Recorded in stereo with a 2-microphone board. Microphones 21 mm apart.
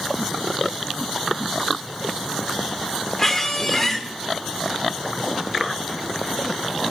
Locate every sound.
3.2 s a squeak: 20° left (ahead or behind), 1.0 m